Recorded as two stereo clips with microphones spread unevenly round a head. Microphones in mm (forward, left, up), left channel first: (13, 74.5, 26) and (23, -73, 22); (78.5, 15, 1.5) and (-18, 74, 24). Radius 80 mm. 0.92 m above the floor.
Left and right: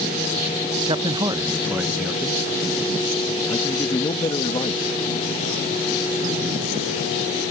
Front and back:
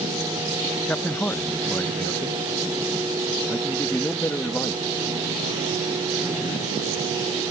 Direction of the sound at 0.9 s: 85° right.